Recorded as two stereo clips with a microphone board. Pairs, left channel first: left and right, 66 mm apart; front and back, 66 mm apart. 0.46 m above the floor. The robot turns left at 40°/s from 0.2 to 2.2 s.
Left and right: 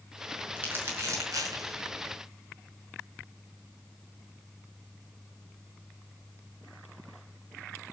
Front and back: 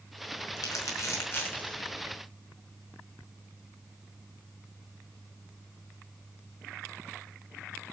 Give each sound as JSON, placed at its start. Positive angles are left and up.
{"t": 0.6, "sound": "crumpling", "azimuth_deg": -25, "distance_m": 5.0}